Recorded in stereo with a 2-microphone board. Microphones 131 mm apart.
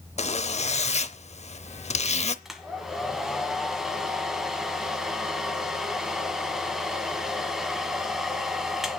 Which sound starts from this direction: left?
A zipper, at 0.2 s.